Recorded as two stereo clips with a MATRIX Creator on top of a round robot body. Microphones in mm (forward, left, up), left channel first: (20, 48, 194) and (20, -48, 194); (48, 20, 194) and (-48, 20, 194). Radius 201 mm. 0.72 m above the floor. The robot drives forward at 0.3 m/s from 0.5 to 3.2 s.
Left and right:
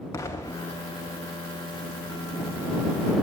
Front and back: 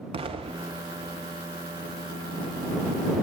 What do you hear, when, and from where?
0.1 s an explosion: 150° left, 0.6 m; by 1.1 s 160° left, 0.8 m